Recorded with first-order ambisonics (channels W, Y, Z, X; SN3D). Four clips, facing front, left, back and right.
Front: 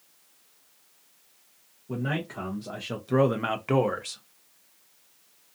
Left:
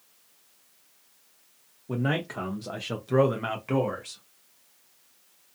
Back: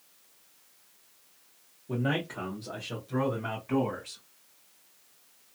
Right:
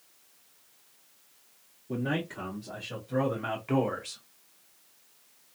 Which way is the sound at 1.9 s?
100° left.